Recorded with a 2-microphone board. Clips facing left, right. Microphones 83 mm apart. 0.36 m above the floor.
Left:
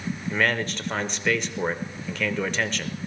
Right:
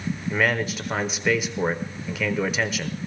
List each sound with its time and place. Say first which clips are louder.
0.3 s a man speaking: right 1 dB; 5° right (ahead or behind), 0.8 m